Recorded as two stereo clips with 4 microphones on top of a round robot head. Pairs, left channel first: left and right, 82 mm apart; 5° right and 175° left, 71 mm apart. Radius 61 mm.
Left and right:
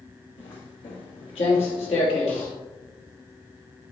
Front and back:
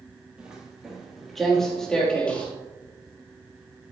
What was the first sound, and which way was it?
Footsteps, 100° left.